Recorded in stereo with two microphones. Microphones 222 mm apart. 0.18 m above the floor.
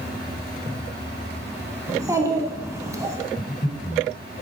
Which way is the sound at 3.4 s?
40° left (ahead or behind).